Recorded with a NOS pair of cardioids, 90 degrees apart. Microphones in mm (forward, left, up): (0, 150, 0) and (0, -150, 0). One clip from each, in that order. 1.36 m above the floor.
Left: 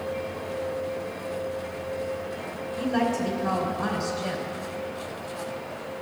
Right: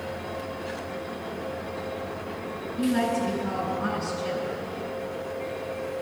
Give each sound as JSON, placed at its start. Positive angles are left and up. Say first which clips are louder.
{"t": 2.8, "sound": "a woman speaking", "louder": "even", "azimuth_deg": 70, "distance_m": 4.5}